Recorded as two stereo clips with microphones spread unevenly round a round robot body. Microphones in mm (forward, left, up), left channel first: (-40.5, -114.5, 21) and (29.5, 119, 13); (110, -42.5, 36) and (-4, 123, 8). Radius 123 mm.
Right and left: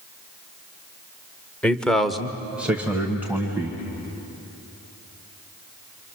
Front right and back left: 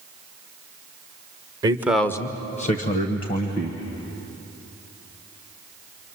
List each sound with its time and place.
1.6 s a man speaking: 170° left, 1.1 m; by 3.8 s 10° right, 2.5 m